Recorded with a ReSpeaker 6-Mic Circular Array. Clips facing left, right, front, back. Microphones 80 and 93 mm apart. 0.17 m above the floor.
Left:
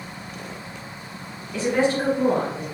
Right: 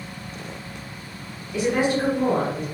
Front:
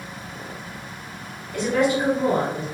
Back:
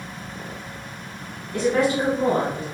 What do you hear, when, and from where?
1.5 s a woman speaking: 150° right, 1.6 m; by 2.6 s 170° left, 1.5 m